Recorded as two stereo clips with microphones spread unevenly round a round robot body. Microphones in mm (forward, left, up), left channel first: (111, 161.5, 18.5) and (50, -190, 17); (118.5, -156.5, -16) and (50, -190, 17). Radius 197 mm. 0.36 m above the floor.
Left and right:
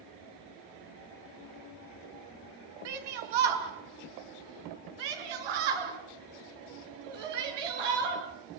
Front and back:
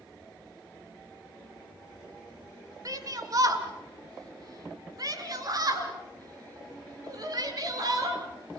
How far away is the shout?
About 5 m.